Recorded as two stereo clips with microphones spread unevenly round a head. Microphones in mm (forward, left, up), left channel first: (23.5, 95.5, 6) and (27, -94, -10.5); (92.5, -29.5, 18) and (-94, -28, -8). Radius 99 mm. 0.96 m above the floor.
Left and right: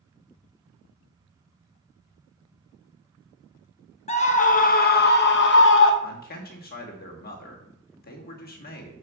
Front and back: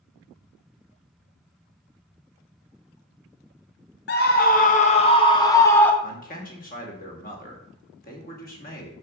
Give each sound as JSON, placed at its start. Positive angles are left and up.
{"t": 4.1, "sound": "a scream", "azimuth_deg": 35, "distance_m": 1.3}
{"t": 6.0, "sound": "a man speaking", "azimuth_deg": 50, "distance_m": 2.0}